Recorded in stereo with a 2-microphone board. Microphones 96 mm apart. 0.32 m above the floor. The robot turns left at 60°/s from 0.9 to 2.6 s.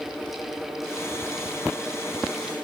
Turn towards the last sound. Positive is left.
No sound to turn to.